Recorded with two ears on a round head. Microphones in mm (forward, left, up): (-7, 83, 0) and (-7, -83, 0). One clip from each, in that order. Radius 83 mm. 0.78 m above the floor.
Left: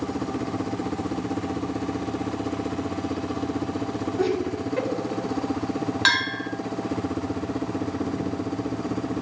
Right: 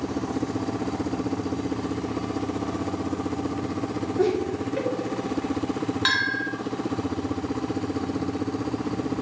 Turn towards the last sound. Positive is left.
turn(degrees=20)  # may be behind; listen again after turning